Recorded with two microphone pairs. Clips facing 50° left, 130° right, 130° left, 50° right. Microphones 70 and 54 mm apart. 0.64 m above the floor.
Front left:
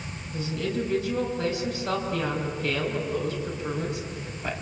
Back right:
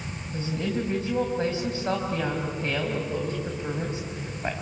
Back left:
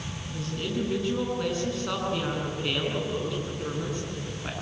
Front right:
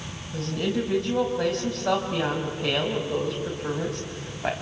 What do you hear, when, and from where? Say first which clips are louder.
0.3 s a woman speaking: even, front right 5 dB; 70° right, 4 m